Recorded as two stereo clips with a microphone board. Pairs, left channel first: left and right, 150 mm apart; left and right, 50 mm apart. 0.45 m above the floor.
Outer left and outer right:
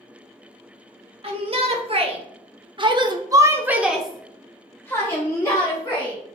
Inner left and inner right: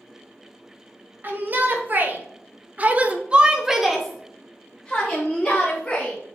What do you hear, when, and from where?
1.2 s a shout: 40° right (ahead or behind), 1.8 m; by 6.2 s 25° left (ahead or behind), 1.9 m